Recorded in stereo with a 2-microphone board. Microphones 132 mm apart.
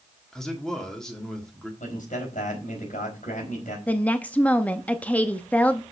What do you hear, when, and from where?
0.3 s a man speaking: 5° left (ahead or behind), 1.5 m
1.8 s a man speaking: 75° left (ahead or behind), 4 m
3.9 s a woman speaking: 10° left (ahead or behind), 0.7 m